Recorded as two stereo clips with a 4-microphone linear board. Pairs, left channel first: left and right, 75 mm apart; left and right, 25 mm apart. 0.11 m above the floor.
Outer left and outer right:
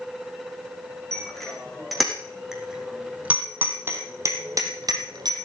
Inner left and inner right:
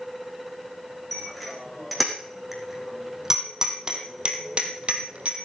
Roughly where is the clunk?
I don't hear a clunk.